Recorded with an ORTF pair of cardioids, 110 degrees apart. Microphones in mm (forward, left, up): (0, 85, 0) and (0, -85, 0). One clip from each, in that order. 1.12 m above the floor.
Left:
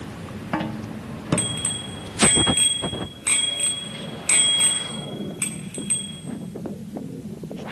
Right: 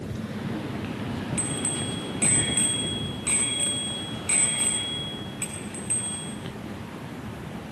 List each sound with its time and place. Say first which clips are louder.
1.4 s a bicycle bell: left 3 dB; 30° left, 8 m